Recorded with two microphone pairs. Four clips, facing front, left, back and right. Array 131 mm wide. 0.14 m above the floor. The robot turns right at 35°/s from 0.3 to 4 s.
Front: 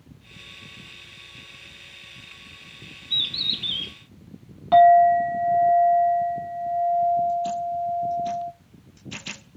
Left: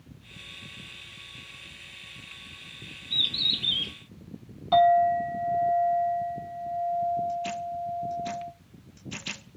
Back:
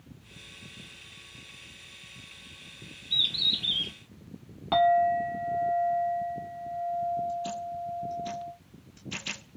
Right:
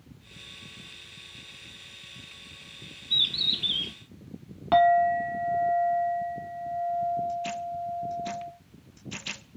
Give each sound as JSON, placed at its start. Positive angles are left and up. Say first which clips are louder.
{"t": 3.1, "sound": "a bird", "louder": "even, front 1 dB", "azimuth_deg": -35, "distance_m": 1.8}
{"t": 4.7, "sound": "a clink", "louder": "left 1 dB, front 9 dB", "azimuth_deg": -100, "distance_m": 0.8}